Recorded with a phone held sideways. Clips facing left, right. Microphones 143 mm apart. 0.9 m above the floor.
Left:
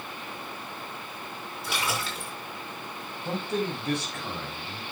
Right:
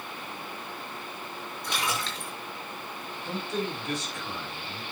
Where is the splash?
5° left (ahead or behind), 5.5 m.